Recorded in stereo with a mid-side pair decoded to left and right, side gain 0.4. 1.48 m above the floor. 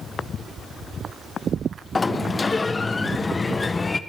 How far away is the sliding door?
About 0.7 m.